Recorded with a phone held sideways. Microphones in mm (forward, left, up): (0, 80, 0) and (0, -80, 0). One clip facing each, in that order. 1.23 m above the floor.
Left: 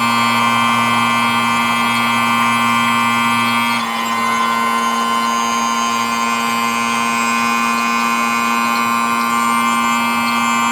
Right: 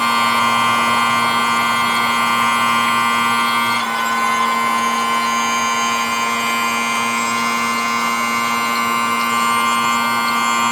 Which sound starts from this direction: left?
A machine running, at 0.0 s.